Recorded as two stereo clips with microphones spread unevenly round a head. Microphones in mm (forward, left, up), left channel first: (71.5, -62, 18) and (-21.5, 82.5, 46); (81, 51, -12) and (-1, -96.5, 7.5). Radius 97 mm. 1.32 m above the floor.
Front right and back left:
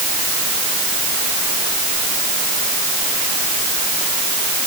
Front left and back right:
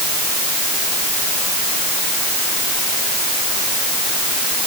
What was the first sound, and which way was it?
Only background noise.